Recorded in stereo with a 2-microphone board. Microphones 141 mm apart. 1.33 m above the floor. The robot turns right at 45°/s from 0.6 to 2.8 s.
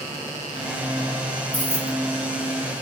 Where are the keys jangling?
10° left (ahead or behind), 2.5 m; by 2.0 s 30° left (ahead or behind), 2.5 m.